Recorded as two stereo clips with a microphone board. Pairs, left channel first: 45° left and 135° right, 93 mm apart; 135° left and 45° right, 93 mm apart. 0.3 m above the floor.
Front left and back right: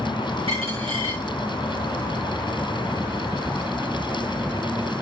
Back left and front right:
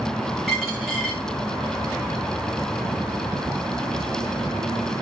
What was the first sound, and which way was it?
A dropped coin, 135° right.